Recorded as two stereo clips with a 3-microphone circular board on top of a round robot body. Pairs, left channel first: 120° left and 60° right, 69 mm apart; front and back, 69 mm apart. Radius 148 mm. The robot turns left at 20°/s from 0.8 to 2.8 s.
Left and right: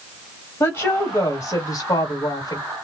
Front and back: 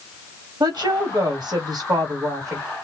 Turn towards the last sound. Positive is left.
turn(degrees=140)